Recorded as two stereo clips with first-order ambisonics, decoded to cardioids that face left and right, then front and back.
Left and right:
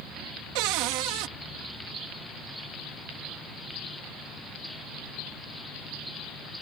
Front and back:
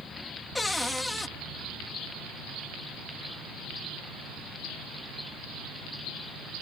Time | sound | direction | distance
0.6 | a cupboard door | 85° right | ?